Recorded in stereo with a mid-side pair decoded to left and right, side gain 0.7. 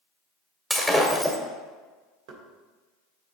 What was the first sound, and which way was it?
Breaking glass, 5° right.